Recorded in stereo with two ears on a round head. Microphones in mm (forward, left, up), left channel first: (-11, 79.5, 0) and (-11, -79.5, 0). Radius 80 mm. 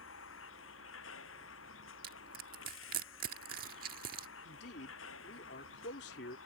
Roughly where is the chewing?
No chewing in this recording.